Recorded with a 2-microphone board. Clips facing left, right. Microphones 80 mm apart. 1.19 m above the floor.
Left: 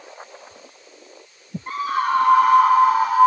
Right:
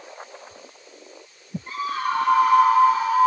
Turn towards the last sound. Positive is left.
turn(degrees=50)  # may be behind; listen again after turning